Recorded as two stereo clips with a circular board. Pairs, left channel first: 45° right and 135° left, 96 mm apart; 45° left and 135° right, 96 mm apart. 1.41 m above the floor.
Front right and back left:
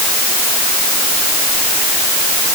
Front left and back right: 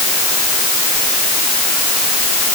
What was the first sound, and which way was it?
Only background noise.